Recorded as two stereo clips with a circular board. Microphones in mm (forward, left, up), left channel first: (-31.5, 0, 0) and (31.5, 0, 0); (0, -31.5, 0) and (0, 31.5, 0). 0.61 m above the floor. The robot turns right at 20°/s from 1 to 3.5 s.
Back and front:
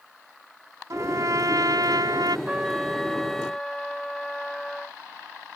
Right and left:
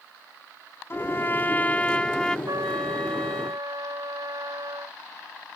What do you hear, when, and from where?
0.9 s a trumpet: 40° right; by 2.4 s 10° right
2.5 s a trumpet: 75° left; by 5.0 s 95° left